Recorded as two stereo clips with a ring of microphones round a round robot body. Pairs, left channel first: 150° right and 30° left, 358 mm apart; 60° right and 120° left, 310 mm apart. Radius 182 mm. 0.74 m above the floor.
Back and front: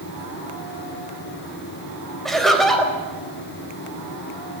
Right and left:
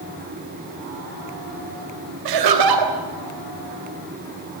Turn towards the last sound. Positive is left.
turn(degrees=120)